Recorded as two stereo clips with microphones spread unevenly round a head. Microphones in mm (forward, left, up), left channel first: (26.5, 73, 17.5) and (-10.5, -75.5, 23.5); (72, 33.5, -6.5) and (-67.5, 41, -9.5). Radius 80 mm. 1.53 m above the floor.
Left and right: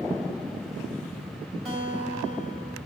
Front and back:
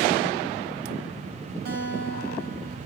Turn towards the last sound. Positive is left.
turn(degrees=-155)